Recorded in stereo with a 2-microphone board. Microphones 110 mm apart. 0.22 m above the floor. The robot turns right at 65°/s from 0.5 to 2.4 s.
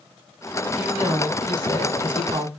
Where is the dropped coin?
No dropped coin in this recording.